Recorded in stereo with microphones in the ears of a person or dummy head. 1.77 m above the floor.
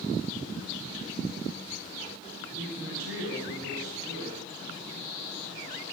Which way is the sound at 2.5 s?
80° right.